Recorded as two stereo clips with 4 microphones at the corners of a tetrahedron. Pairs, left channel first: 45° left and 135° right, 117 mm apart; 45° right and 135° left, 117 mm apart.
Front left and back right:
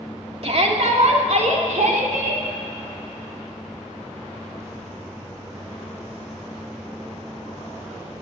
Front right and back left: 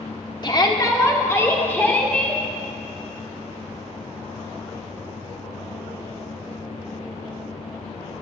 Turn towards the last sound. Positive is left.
turn(degrees=-125)